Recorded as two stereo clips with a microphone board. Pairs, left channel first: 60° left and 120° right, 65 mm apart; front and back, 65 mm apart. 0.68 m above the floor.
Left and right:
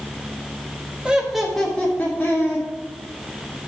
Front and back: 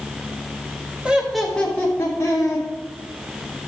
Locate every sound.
1.1 s laughter: 155° right, 1.1 m; by 2.7 s 10° left, 1.8 m